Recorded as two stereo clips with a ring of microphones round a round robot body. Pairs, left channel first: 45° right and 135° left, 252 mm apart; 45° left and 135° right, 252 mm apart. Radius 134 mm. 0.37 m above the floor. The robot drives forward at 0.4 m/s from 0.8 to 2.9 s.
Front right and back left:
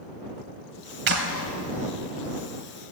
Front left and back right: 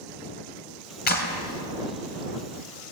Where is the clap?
95° left, 2.5 m; by 1.4 s 100° left, 2.5 m.